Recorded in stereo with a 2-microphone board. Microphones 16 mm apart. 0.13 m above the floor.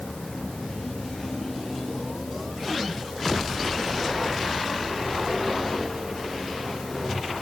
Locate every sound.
Only background noise.